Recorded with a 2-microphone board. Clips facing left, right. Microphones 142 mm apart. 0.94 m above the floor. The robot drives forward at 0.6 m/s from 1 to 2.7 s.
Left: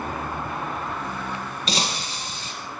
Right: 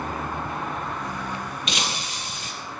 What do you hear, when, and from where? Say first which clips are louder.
1.7 s breaking glass: left 5 dB; 35° left (ahead or behind), 3 m; by 2.5 s 30° left (ahead or behind), 3.5 m